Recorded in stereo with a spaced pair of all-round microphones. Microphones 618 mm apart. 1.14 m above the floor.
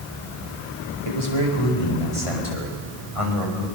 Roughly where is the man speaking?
Left.